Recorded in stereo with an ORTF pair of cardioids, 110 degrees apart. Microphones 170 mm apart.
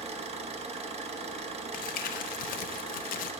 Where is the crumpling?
60° left, 0.7 m.